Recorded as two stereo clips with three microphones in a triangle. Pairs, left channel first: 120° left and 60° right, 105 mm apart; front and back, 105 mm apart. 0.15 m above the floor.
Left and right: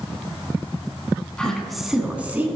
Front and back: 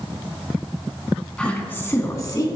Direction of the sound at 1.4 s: 60° left.